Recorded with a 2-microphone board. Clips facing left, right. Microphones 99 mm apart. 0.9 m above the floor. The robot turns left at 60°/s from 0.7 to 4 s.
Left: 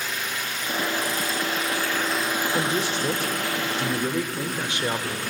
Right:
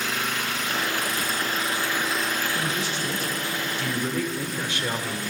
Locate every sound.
0.0 s an engine running: 90° right, 3 m; by 5.3 s 70° left, 3 m
2.5 s a man speaking: 110° left, 3 m; by 5.2 s 20° left, 3 m